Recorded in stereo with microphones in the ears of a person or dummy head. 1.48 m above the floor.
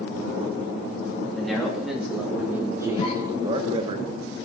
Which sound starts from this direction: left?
A cough, at 3.0 s.